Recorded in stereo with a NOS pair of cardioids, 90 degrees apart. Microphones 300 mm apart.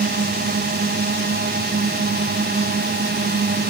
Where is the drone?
30° right.